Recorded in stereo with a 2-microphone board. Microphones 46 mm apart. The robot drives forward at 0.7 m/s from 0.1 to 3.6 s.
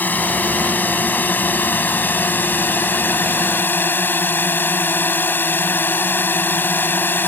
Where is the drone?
40° left (ahead or behind); by 7.3 s 50° left (ahead or behind).